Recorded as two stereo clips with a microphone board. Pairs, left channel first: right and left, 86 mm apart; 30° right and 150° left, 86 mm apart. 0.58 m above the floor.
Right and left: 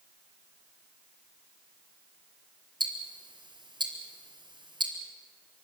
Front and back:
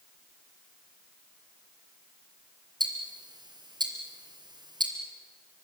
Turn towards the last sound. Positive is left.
turn(degrees=115)